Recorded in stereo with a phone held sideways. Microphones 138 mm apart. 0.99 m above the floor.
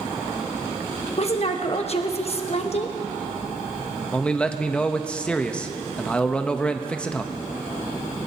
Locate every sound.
1.2 s a woman speaking: 50° left (ahead or behind), 1.2 m
4.1 s a man speaking: 10° left (ahead or behind), 0.8 m